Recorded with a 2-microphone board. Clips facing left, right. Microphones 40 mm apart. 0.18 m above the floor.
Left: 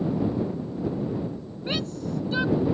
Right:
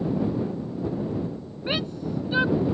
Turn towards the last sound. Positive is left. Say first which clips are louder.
# right 1 dB
turn(degrees=-20)  # may be behind; listen again after turning